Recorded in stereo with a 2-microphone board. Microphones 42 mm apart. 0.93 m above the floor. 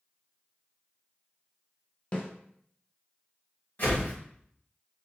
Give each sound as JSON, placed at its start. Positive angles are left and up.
{"t": 2.1, "sound": "a snare drum", "side_deg": 30, "distance_m": 0.6}
{"t": 3.8, "sound": "a whoosh", "side_deg": 50, "distance_m": 1.4}